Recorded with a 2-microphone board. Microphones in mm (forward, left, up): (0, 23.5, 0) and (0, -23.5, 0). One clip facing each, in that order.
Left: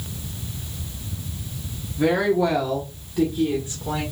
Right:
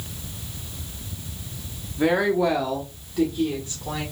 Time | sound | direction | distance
2.0 | a woman speaking | 20° right (ahead or behind) | 0.9 m